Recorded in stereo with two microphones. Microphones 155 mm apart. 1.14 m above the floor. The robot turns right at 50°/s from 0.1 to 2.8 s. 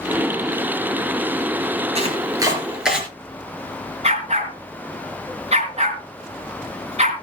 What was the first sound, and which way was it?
Chopping, 45° right (ahead or behind).